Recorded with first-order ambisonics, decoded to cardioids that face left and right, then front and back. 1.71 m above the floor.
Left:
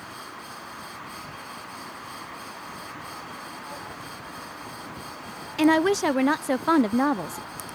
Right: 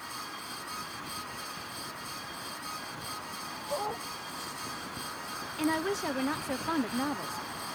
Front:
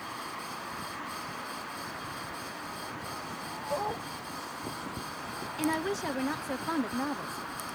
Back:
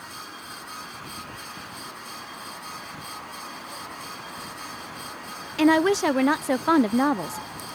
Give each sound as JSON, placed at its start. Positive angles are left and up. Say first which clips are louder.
{"t": 3.7, "sound": "a dog barking", "louder": "right 4 dB, front 5 dB", "azimuth_deg": -40}
{"t": 5.6, "sound": "a woman speaking", "louder": "left 11 dB, back 12 dB", "azimuth_deg": 135}